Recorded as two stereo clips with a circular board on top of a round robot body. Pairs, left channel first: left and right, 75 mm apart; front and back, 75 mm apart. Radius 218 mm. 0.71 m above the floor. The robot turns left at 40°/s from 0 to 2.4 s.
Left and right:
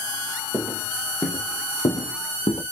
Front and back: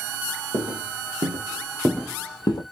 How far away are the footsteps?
About 3 m.